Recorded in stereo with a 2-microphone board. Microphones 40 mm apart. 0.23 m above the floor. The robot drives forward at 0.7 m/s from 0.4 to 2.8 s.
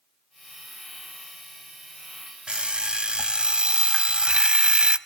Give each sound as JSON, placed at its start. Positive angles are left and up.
{"t": 2.5, "sound": "an alarm clock", "side_deg": -30, "distance_m": 0.5}